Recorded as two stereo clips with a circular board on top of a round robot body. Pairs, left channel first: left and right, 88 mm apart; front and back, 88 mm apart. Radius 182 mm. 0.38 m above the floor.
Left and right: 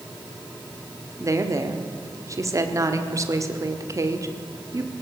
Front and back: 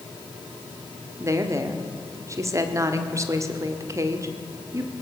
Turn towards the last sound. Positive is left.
turn(degrees=-135)